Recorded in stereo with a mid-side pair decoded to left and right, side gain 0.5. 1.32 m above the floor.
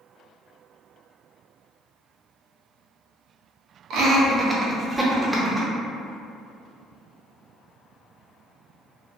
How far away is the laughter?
About 0.8 m.